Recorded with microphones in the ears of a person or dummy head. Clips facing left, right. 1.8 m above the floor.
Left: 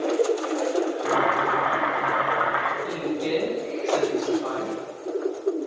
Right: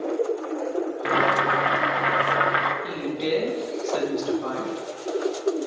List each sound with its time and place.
1.1 s boiling: 35° right (ahead or behind), 0.7 m
2.8 s a woman speaking: 30° right (ahead or behind), 2.5 m